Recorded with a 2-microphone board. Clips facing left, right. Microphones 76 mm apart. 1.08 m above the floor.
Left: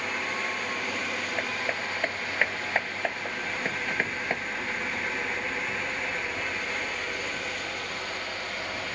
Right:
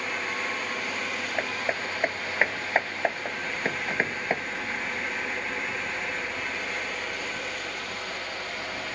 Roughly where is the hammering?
Centre.